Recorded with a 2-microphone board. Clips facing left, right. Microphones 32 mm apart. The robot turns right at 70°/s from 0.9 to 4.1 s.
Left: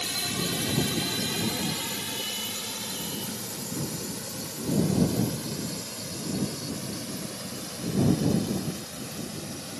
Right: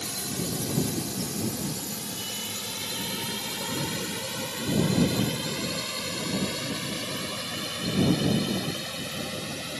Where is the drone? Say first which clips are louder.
Left 3 dB; 45° left (ahead or behind); by 9.8 s 55° right (ahead or behind).